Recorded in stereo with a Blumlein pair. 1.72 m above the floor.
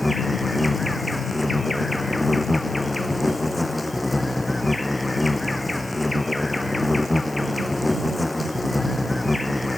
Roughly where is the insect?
Ahead.